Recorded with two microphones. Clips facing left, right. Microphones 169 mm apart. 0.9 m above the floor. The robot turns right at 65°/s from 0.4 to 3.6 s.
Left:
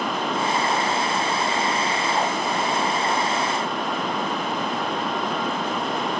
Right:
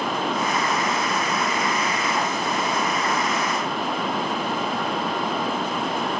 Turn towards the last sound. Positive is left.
No sound to turn to.